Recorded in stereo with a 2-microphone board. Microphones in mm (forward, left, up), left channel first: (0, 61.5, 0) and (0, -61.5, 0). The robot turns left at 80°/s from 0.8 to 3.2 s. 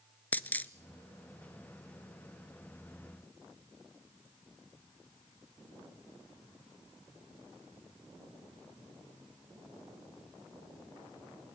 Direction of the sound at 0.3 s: 15° left (ahead or behind).